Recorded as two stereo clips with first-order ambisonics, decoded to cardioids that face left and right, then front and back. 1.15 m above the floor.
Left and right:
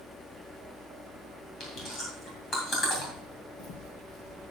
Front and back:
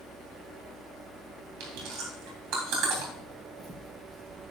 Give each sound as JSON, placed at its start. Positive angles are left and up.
{"t": 1.6, "sound": "chewing", "azimuth_deg": 155, "distance_m": 3.5}
{"t": 3.1, "sound": "footsteps", "azimuth_deg": 105, "distance_m": 1.6}